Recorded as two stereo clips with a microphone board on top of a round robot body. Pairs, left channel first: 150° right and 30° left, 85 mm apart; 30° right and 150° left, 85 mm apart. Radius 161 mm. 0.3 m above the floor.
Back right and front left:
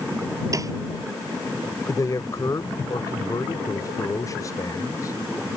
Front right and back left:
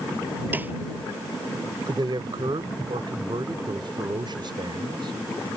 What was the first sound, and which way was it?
A snare drum, 80° left.